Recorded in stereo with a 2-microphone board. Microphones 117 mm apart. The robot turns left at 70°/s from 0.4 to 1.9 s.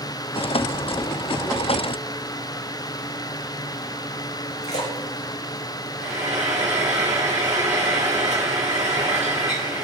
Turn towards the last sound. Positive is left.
turn(degrees=-80)